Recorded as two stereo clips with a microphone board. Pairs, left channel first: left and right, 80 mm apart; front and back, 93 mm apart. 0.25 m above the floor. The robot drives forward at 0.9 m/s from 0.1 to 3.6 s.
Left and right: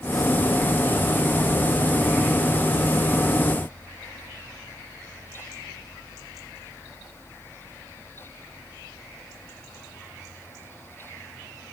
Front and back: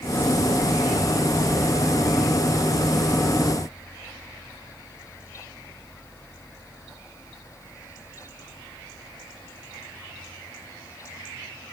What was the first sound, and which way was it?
Only background noise.